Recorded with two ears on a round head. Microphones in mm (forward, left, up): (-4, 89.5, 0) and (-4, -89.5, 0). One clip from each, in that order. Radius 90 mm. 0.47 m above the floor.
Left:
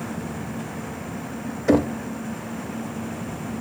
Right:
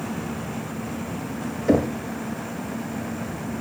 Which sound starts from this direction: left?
Knocking, at 1.7 s.